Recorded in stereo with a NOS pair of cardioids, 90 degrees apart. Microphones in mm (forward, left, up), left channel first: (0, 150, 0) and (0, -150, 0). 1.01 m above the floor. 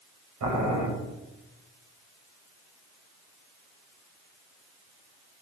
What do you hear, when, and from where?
0.4 s boiling: 70° right, 5 m